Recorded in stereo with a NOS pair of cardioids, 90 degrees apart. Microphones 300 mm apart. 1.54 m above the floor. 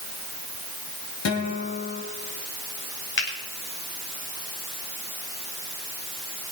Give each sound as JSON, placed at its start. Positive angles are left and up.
{"t": 1.2, "sound": "a guitar", "azimuth_deg": 55, "distance_m": 4.5}
{"t": 3.2, "sound": "a finger snap", "azimuth_deg": 40, "distance_m": 5.5}